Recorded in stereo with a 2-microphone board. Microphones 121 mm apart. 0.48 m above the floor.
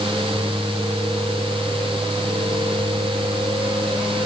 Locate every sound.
Only background noise.